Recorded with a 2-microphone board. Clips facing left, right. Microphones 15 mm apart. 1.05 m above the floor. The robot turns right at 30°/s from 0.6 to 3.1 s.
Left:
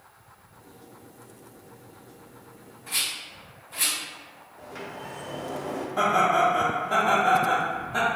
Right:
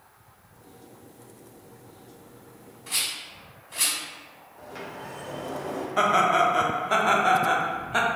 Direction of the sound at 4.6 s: 5° right (ahead or behind).